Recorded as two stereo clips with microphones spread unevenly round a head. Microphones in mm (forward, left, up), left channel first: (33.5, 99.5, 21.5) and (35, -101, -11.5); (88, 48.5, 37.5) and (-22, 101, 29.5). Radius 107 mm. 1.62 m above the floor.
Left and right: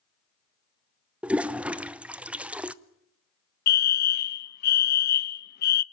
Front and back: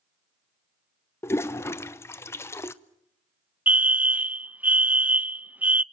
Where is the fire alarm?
90° left, 0.6 m.